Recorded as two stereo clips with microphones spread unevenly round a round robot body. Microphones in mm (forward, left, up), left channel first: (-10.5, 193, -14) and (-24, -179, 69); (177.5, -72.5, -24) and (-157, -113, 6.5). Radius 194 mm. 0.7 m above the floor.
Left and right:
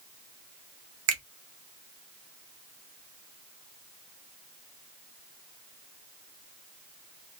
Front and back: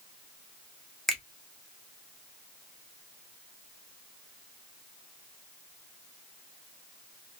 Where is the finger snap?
70° right, 1.0 m.